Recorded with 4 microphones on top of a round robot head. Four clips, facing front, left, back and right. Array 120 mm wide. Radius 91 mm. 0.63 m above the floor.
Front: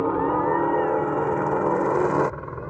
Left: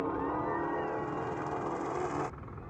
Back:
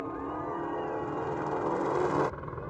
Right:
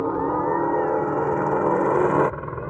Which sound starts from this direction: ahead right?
A helicopter, at 0.0 s.